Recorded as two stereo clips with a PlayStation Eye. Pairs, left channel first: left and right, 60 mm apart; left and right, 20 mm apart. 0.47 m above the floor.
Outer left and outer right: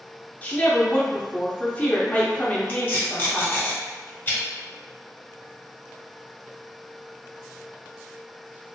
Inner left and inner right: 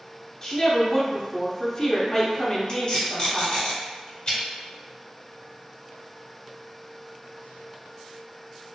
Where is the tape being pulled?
35° left (ahead or behind), 1.6 m.